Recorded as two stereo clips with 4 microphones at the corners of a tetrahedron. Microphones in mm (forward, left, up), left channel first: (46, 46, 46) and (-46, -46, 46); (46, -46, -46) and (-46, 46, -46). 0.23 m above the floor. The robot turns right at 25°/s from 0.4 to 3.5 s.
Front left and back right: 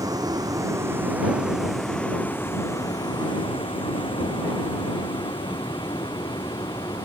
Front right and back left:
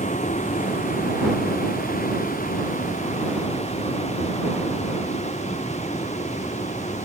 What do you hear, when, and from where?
0.0 s a vehicle: 70° right; by 7.1 s 15° right